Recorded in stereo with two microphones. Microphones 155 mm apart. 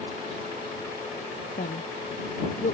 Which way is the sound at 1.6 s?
65° left (ahead or behind).